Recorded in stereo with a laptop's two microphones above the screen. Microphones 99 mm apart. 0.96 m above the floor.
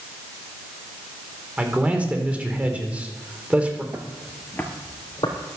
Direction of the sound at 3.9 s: 25° right (ahead or behind).